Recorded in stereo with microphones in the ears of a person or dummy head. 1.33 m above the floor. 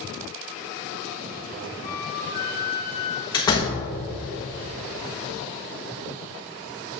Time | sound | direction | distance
1.8 | a flute | 25° left (ahead or behind) | 0.6 m
3.3 | a door slam | 25° left (ahead or behind) | 1.3 m